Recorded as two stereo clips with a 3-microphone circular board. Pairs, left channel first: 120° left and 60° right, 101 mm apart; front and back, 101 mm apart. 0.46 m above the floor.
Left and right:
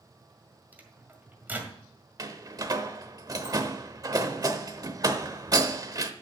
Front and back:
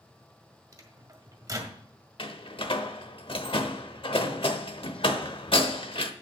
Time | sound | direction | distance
0.7 | a microwave | 130° right | 1.7 m
2.2 | a door slam | 15° right | 0.9 m